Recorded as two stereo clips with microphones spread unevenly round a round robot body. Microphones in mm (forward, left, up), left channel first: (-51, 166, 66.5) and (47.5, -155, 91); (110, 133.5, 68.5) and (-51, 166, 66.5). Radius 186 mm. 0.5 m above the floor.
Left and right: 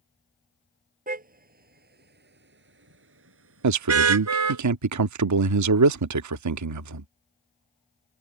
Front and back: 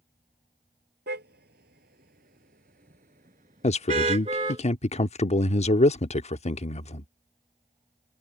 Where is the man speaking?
50° right.